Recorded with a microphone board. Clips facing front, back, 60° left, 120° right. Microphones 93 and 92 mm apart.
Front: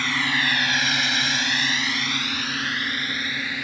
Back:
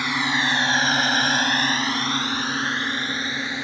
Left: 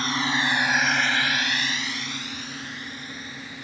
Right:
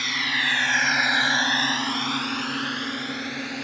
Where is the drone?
105° left; by 3.6 s 115° right.